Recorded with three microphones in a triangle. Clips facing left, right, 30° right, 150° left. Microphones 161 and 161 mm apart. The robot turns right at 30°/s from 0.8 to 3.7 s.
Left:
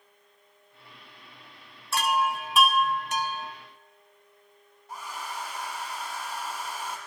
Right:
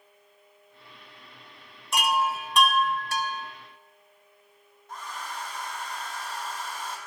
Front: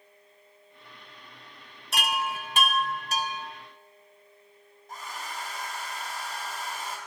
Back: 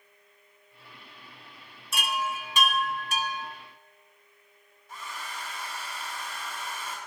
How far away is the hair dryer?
About 3.5 m.